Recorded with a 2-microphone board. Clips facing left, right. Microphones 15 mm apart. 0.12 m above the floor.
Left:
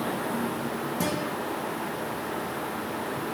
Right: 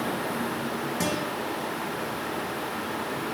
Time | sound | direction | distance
1.0 | a guitar | 20° right (ahead or behind) | 3.5 m